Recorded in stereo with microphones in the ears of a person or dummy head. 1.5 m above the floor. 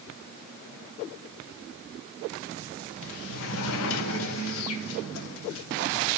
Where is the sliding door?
80° left, 0.9 m.